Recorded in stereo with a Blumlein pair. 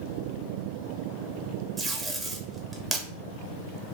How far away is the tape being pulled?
About 1.0 m.